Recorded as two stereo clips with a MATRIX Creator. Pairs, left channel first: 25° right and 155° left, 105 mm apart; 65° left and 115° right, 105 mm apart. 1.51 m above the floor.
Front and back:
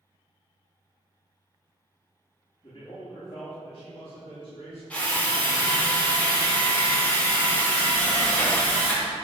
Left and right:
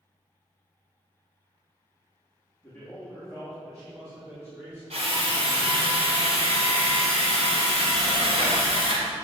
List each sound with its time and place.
2.6 s a man speaking: straight ahead, 3 m; by 4.8 s 35° right, 4.5 m
4.9 s a drill: 100° right, 3 m